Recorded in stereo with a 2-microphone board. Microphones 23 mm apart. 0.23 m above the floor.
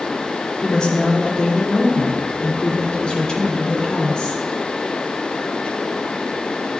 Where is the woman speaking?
50° left (ahead or behind), 2.5 m.